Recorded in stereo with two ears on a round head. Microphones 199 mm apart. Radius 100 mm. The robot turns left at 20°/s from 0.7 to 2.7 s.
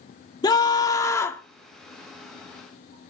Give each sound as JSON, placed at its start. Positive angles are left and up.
{"t": 0.4, "sound": "a scream", "side_deg": 20, "distance_m": 1.2}